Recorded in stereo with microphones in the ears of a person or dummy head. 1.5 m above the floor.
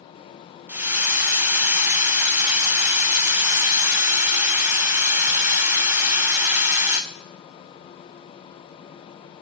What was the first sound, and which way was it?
A hiss, 10° right (ahead or behind).